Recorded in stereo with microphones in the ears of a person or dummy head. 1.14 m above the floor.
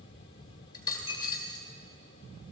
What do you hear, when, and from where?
0.7 s a dropped coin: 20° left (ahead or behind), 1.9 m